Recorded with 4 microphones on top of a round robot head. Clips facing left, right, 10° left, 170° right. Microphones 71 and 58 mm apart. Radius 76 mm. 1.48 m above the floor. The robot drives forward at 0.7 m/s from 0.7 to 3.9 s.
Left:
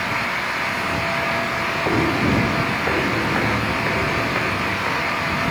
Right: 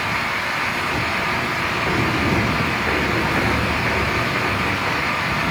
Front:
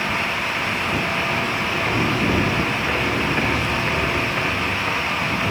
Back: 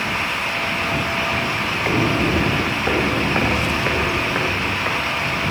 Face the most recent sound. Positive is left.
turn(degrees=165)